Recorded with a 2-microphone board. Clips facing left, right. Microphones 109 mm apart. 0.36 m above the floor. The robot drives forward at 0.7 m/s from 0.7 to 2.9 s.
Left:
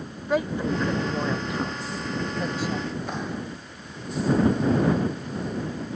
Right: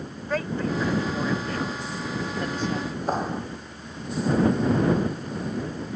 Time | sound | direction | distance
0.3 | a woman speaking | 15° left (ahead or behind) | ?
3.1 | a clap | 40° right (ahead or behind) | ?